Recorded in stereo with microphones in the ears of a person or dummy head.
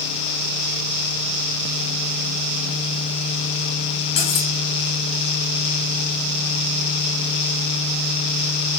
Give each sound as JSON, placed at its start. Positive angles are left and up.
{"t": 4.2, "sound": "cutlery clinking", "side_deg": 35, "distance_m": 0.8}